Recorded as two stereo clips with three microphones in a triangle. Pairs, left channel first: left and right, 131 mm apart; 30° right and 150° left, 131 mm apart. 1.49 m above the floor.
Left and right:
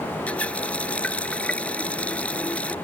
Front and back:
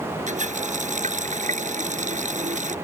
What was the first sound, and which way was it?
A running tap, 170° left.